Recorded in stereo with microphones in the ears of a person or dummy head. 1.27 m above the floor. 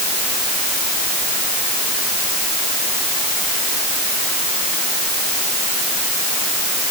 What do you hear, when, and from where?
Only background noise.